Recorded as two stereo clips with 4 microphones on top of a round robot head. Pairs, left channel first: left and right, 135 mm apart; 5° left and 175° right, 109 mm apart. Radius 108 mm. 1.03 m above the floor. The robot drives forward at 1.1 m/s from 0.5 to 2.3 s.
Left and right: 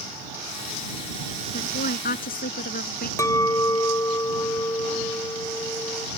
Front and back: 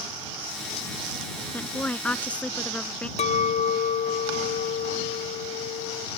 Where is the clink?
20° left.